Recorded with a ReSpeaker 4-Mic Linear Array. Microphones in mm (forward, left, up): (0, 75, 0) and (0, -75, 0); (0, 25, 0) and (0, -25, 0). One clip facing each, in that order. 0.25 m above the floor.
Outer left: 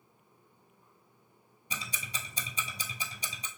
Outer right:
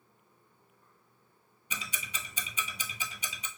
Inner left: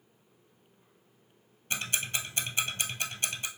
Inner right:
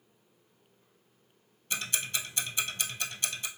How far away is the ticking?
About 0.9 m.